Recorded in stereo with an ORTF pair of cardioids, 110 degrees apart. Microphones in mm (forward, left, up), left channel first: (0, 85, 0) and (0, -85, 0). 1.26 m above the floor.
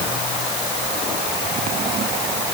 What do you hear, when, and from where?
Only background noise.